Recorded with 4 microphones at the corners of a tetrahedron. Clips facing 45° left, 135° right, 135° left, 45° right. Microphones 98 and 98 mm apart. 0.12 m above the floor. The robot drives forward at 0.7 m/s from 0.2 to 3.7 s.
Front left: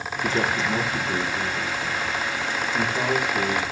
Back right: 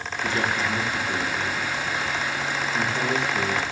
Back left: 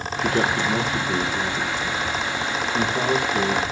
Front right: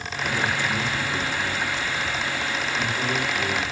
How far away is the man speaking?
About 7.5 m.